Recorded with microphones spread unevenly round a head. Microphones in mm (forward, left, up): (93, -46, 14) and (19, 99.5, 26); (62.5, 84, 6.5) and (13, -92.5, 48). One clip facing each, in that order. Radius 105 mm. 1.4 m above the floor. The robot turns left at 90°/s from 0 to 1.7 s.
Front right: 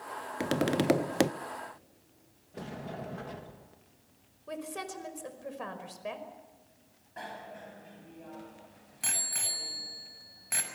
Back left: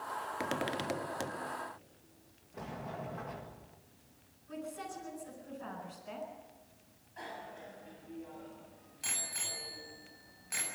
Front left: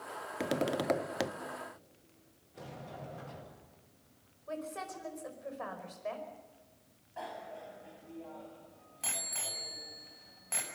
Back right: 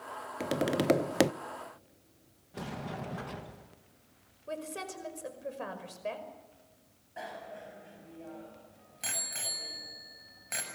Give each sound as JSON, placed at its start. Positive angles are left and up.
{"t": 0.4, "sound": "tapping", "azimuth_deg": 0, "distance_m": 0.7}
{"t": 2.5, "sound": "a sliding door", "azimuth_deg": -130, "distance_m": 1.7}
{"t": 4.5, "sound": "a woman speaking", "azimuth_deg": -55, "distance_m": 5.0}
{"t": 7.2, "sound": "a bicycle bell", "azimuth_deg": -35, "distance_m": 6.5}